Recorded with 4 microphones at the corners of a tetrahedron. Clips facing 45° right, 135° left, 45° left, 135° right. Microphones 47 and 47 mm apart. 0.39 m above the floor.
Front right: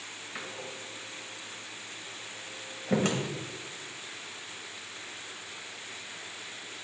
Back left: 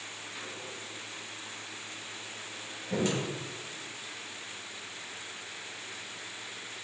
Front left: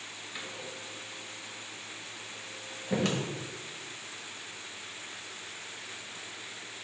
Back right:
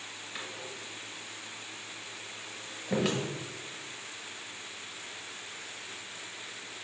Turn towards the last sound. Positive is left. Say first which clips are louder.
# front right 4 dB, even
turn(degrees=-55)